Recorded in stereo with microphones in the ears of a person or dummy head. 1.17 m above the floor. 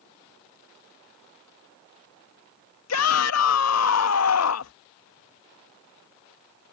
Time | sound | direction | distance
2.9 | a shout | 75° left (ahead or behind) | ?